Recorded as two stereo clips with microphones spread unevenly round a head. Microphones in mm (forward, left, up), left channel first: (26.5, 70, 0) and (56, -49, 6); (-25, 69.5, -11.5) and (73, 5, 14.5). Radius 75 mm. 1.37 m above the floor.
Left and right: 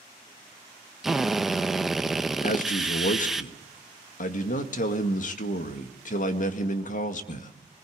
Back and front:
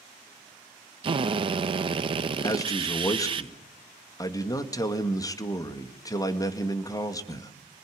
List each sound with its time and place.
1.0 s a drill: 10° left, 1.2 m
2.4 s a man speaking: 85° left, 2.0 m